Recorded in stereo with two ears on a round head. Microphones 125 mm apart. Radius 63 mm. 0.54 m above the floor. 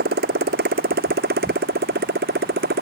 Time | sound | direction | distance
0.0 | a motorcycle | 70° right (ahead or behind) | ?